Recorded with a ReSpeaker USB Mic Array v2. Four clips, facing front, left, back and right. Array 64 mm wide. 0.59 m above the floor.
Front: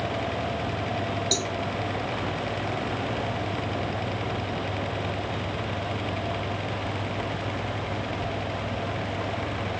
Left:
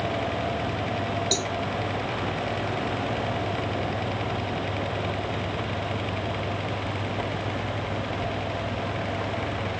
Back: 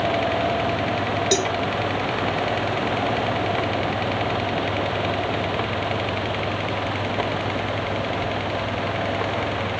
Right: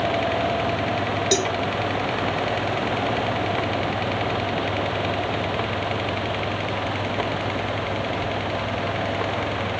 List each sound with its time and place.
1.3 s a cowbell: 140° right